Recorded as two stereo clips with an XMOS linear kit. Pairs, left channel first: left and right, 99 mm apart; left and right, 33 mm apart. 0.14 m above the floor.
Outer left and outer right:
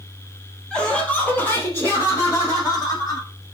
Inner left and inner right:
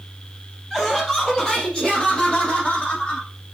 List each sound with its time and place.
0.7 s laughter: 5° left (ahead or behind), 3 m; by 3.3 s 40° left (ahead or behind), 5 m